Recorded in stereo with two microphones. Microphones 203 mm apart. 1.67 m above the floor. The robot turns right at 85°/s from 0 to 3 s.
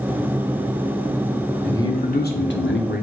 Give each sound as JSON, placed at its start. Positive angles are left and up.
{"t": 1.6, "sound": "a man speaking", "azimuth_deg": 5, "distance_m": 0.7}